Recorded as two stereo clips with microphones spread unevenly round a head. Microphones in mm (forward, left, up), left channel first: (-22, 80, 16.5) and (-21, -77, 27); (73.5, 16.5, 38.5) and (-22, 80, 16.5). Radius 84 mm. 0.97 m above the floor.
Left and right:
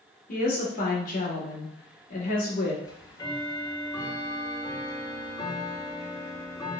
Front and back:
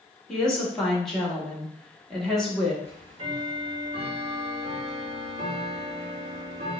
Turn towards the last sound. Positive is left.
turn(degrees=150)